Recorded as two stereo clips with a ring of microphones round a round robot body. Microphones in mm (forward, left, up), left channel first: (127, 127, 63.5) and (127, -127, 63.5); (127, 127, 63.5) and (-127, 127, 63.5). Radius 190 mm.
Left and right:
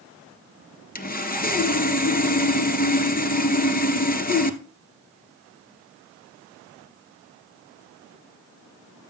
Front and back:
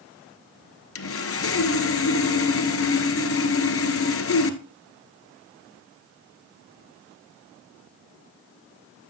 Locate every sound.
0.9 s sawing: 35° left, 1.6 m